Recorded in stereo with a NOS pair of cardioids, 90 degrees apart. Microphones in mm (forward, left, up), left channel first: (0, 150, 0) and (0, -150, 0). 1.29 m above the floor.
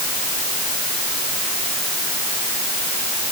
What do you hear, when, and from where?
Only background noise.